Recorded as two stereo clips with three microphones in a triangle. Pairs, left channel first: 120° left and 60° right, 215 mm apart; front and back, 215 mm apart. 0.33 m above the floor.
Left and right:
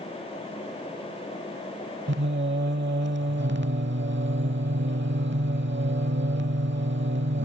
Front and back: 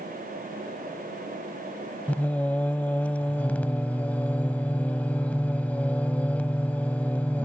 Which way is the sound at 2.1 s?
85° right.